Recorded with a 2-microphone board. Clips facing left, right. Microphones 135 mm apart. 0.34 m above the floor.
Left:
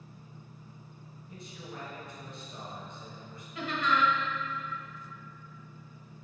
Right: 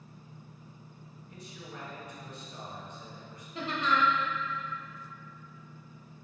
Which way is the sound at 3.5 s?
35° right (ahead or behind).